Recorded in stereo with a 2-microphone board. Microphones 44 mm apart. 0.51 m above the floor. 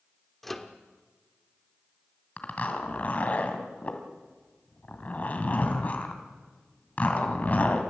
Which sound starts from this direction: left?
A zipper, at 2.4 s.